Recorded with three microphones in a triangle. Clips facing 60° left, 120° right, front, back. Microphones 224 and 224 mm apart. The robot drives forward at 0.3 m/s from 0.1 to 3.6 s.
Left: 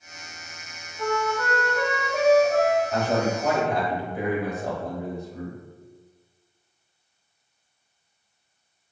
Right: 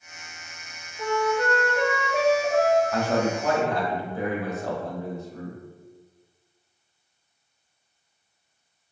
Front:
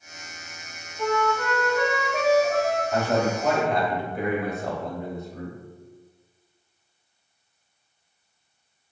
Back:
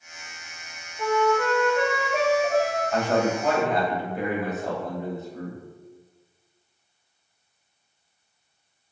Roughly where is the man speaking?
Ahead left.